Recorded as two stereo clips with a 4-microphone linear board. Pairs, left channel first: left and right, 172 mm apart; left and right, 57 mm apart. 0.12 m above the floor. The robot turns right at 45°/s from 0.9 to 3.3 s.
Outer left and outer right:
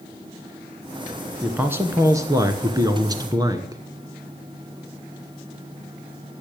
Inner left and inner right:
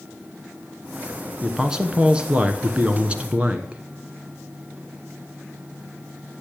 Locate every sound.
1.4 s a man speaking: 10° right (ahead or behind), 1.2 m; by 3.8 s 20° right (ahead or behind), 1.2 m